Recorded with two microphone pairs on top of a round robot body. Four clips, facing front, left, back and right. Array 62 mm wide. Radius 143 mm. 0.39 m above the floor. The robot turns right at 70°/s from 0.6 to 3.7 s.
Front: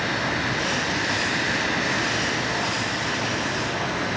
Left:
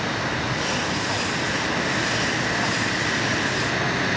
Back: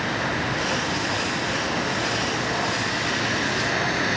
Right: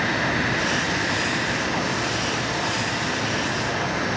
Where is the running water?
70° right, 9 m; by 4.2 s 145° left, 9 m.